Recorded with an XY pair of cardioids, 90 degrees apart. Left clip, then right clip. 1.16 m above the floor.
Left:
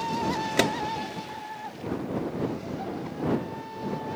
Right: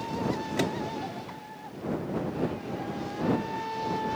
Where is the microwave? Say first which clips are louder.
Left 7 dB; 65° left.